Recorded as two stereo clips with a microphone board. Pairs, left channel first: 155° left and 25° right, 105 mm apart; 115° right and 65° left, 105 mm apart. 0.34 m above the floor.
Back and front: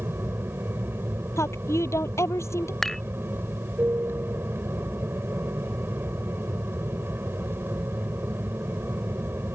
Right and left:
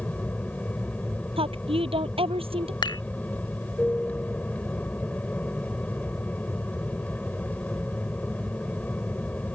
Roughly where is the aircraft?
Ahead right.